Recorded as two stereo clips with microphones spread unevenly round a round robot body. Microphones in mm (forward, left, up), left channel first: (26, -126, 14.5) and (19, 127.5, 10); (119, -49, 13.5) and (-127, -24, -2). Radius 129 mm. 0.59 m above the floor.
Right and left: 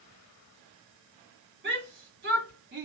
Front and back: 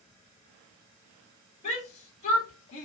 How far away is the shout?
About 1.6 m.